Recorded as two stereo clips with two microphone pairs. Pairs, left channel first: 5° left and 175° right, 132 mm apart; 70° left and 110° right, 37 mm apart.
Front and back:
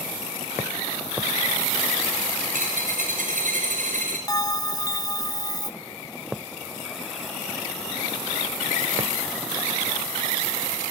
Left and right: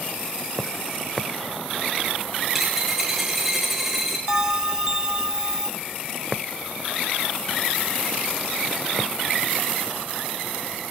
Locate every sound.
2.5 s a dropped coin: 165° left, 6 m
4.3 s a bell: 45° right, 0.7 m